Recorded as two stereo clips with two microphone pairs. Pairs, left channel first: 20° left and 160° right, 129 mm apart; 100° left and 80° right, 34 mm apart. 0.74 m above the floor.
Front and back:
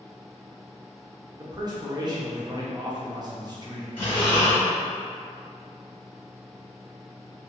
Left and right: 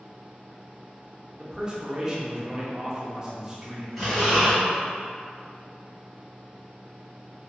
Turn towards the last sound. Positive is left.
turn(degrees=15)